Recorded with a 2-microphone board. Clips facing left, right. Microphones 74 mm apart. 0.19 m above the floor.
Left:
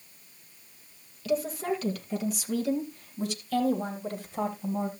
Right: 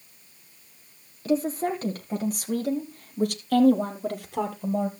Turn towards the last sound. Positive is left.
turn(degrees=-75)  # may be behind; listen again after turning